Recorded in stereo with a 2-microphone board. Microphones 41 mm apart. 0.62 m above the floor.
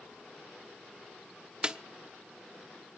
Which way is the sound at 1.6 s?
20° right (ahead or behind).